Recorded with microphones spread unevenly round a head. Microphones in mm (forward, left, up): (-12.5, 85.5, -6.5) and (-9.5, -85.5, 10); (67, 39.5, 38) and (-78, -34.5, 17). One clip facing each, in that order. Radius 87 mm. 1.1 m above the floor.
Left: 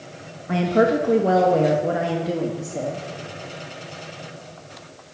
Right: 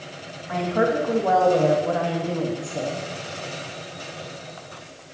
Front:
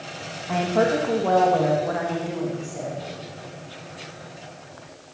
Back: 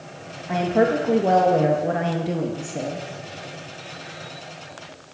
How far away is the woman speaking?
About 1.8 m.